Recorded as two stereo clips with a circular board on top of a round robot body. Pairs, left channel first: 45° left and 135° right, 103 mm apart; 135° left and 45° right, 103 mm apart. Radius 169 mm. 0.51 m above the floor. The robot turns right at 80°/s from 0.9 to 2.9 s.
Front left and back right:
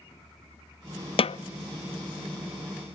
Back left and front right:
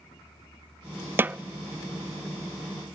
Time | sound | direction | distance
1.2 | a snare drum | 25° left | 0.5 m